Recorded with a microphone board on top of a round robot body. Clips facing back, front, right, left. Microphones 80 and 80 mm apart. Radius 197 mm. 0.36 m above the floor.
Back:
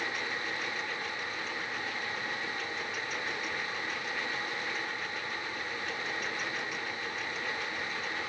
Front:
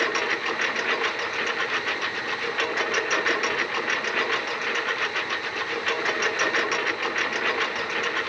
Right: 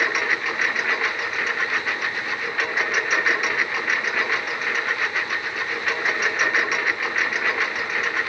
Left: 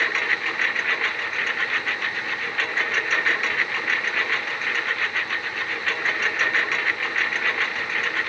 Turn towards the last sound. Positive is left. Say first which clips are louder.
# front 10 dB, right 2 dB
turn(degrees=-15)